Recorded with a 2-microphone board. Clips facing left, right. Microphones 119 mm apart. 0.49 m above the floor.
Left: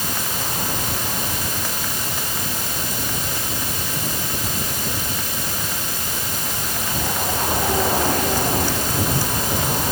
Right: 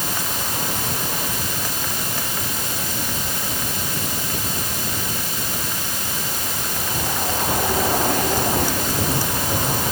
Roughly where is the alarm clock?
No alarm clock in this recording.